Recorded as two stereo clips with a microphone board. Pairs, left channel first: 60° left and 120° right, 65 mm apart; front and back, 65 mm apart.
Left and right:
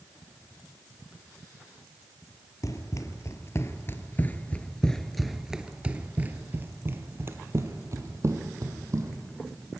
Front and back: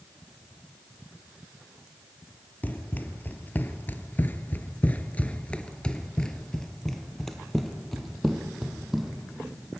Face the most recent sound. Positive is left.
turn(degrees=-95)